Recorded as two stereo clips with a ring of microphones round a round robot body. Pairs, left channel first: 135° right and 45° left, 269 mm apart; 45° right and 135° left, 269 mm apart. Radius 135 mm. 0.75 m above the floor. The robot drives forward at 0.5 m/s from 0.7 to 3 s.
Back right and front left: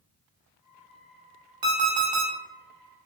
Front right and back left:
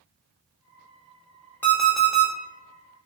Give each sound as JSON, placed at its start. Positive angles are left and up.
{"t": 1.6, "sound": "an alarm clock", "azimuth_deg": 40, "distance_m": 1.1}